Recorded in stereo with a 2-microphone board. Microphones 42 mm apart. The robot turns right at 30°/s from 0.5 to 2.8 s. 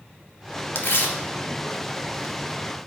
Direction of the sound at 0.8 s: 65° left (ahead or behind).